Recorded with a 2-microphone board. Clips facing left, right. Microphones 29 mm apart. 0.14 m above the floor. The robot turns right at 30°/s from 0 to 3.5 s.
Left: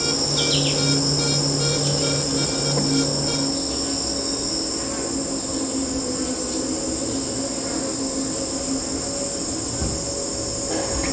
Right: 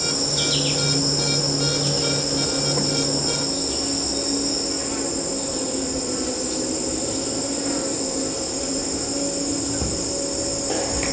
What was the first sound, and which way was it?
An insect, 155° left.